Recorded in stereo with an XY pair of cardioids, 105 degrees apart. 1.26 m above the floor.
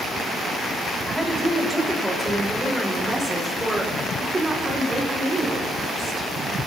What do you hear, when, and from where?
1.1 s a woman speaking: 5° right, 5 m; by 6.3 s 45° right, 4 m